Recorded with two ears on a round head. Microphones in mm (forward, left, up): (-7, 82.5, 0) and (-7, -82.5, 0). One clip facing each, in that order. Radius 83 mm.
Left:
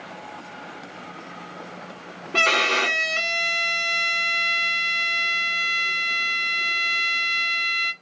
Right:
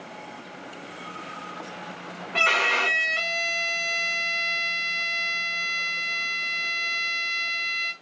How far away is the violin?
About 1.1 m.